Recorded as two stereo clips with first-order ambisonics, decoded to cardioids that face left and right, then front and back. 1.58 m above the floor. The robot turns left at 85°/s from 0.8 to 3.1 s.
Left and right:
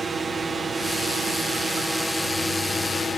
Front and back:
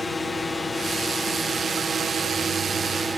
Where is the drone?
55° right; by 3.2 s 110° left.